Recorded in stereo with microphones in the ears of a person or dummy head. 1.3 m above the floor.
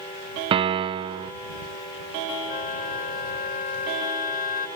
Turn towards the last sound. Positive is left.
turn(degrees=50)  # may be behind; listen again after turning